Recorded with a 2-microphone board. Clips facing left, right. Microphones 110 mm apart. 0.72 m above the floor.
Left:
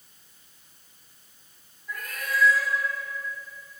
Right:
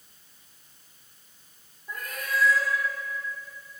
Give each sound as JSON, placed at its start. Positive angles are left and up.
{"t": 1.9, "sound": "a cat meowing", "side_deg": -30, "distance_m": 8.5}